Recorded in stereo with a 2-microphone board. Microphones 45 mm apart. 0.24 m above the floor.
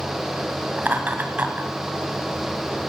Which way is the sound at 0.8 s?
40° right (ahead or behind).